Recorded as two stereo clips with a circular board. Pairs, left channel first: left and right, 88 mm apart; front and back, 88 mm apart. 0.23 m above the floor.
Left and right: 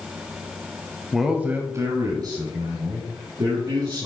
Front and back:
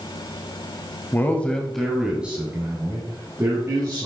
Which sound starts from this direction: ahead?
A man speaking, at 1.1 s.